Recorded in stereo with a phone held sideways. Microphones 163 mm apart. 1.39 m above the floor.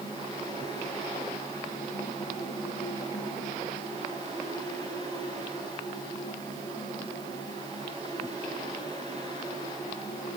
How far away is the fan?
About 6.5 m.